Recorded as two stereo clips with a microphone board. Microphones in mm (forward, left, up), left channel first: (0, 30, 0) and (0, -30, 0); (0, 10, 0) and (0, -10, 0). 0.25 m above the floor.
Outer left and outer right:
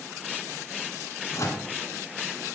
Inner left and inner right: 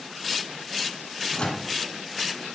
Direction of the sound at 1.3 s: 55° left (ahead or behind).